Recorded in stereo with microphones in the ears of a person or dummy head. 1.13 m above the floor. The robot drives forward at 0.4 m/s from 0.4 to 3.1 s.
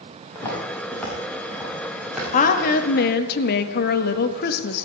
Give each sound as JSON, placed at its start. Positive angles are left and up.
{"t": 0.3, "sound": "footsteps", "side_deg": 15, "distance_m": 4.5}
{"t": 2.3, "sound": "a woman speaking", "side_deg": 50, "distance_m": 1.4}